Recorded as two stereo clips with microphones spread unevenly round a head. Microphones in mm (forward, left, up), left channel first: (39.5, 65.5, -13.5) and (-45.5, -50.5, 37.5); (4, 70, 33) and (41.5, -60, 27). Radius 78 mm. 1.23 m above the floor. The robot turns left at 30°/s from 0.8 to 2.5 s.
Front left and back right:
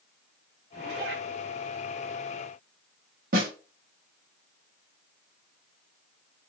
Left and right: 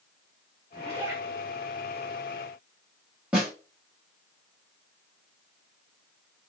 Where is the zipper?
130° right, 1.8 m; by 1.2 s 140° right, 1.8 m.